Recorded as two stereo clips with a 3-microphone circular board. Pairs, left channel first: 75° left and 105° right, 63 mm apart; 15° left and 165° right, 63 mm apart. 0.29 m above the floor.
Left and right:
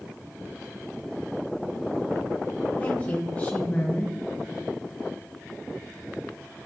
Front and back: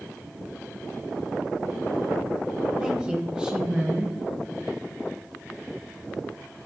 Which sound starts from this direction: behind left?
A woman speaking, at 2.8 s.